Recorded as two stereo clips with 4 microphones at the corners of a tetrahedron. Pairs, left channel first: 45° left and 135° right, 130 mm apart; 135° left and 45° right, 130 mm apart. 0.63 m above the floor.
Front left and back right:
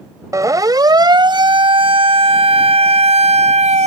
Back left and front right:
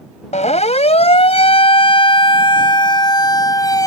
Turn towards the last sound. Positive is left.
turn(degrees=-165)